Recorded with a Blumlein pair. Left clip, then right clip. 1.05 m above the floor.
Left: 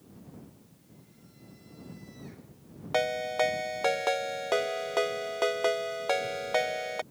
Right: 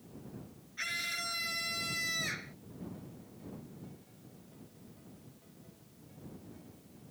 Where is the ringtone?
45° left.